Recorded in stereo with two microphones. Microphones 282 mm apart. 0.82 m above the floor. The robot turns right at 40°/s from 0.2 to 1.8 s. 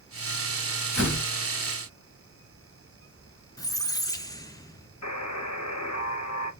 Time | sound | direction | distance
0.9 | a door slam | 85° left | 3.5 m
3.6 | a squeak | 10° left (ahead or behind) | 0.6 m
5.0 | a buzzer | 65° left (ahead or behind) | 1.1 m